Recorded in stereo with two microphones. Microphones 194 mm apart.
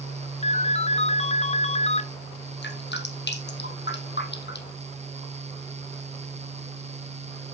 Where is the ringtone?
35° left (ahead or behind), 0.8 m.